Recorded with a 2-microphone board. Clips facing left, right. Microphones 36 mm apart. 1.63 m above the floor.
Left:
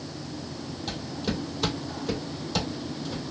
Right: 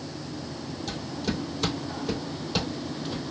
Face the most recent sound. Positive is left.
turn(degrees=-25)  # may be behind; listen again after turning